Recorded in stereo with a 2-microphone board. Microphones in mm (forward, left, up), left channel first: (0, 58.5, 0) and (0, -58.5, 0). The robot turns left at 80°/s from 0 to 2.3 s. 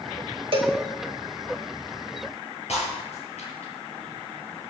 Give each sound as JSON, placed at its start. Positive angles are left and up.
{"t": 0.5, "sound": "a cowbell", "side_deg": -50, "distance_m": 1.8}
{"t": 2.7, "sound": "breaking glass", "side_deg": 65, "distance_m": 7.5}